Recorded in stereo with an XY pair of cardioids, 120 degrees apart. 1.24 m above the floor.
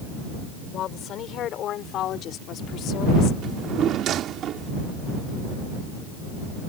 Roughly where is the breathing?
No breathing in this recording.